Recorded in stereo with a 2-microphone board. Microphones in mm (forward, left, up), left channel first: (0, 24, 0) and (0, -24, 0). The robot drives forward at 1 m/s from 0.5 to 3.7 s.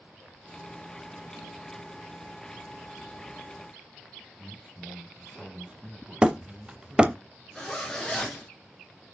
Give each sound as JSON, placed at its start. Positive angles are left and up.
{"t": 4.4, "sound": "a man speaking", "side_deg": -20, "distance_m": 1.4}
{"t": 6.2, "sound": "hammering", "side_deg": -20, "distance_m": 0.6}
{"t": 7.5, "sound": "a zipper", "side_deg": 10, "distance_m": 3.0}